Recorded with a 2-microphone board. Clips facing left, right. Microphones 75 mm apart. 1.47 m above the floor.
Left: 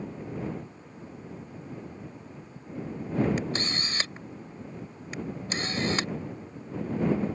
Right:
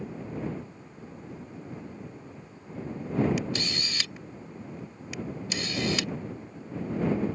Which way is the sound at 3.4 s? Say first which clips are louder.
Left 1 dB; 35° left (ahead or behind).